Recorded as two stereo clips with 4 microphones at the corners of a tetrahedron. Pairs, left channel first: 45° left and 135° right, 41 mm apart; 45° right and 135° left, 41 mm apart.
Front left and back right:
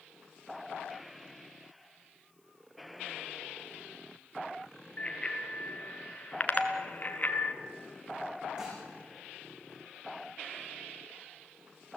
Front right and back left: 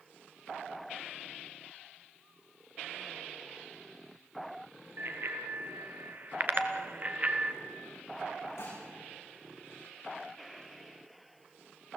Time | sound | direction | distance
5.0 | a bicycle bell | 110° left | 3 m
6.5 | a doorbell | 110° right | 2.5 m
8.6 | dishes clattering | 65° right | 9 m